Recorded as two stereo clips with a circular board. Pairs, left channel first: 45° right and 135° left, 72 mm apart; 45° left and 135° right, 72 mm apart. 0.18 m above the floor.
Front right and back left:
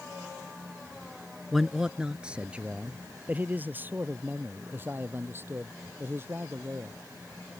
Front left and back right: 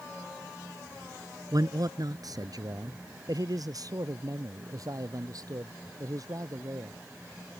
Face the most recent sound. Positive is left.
turn(degrees=-170)